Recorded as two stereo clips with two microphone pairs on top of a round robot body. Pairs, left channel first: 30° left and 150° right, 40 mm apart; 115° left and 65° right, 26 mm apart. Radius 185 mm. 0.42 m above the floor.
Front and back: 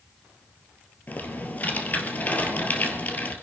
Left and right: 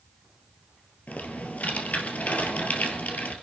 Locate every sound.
1.1 s typing on a keyboard: 85° left, 2.5 m